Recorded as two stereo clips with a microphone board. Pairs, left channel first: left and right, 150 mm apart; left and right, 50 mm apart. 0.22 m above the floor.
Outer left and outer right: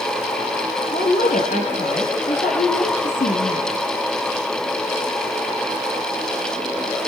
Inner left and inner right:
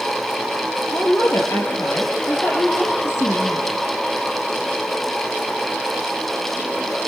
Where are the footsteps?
I don't hear footsteps.